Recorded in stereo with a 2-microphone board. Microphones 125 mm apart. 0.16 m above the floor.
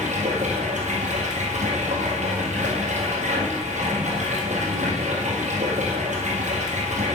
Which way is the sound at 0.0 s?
80° right.